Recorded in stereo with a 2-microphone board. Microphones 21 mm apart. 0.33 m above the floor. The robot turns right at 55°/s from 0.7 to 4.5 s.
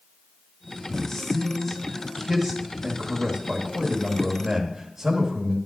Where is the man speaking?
30° left (ahead or behind), 1.1 m; by 5.6 s 25° right (ahead or behind), 1.1 m.